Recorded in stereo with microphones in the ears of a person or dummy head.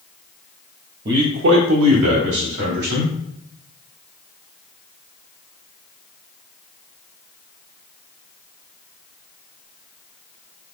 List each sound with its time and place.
1.1 s a man speaking: 30° right (ahead or behind), 0.5 m; by 3.1 s 60° right (ahead or behind), 1.8 m